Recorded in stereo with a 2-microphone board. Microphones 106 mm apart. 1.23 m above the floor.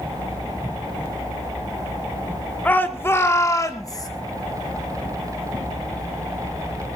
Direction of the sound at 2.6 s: 15° left (ahead or behind).